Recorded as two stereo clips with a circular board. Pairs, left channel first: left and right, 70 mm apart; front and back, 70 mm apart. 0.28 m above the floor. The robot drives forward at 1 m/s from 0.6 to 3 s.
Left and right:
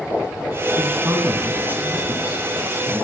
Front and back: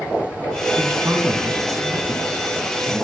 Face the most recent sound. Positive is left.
turn(degrees=-160)